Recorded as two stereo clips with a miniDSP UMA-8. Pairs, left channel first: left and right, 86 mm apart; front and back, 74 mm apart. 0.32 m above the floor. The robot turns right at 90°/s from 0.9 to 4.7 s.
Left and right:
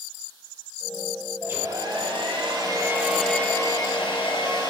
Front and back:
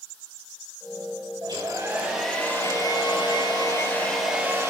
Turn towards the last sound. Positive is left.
turn(degrees=135)